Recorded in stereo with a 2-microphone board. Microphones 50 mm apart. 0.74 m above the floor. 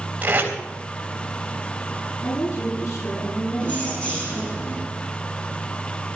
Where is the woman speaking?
85° left, 10 m.